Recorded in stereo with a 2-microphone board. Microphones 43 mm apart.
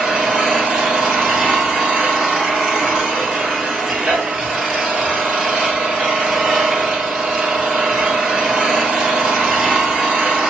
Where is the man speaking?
I don't hear a man speaking.